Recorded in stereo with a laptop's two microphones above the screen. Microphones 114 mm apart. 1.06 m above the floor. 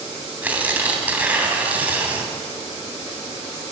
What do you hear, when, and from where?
0.4 s tearing paper: 15° right (ahead or behind), 3 m